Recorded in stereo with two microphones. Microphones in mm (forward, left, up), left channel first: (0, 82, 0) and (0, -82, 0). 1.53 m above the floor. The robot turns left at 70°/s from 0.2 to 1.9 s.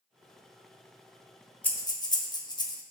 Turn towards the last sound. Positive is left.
turn(degrees=25)  # may be behind; listen again after turning